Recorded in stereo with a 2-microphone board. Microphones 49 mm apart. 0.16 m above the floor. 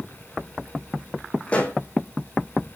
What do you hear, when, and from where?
1.5 s a pop: 25° left (ahead or behind), 1.6 m